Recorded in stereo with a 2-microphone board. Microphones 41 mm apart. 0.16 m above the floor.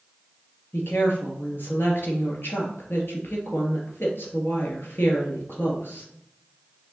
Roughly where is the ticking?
I don't hear ticking.